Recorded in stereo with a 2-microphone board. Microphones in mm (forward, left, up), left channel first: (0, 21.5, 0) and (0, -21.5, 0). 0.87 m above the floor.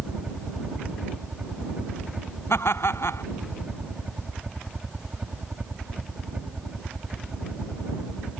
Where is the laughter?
70° left (ahead or behind).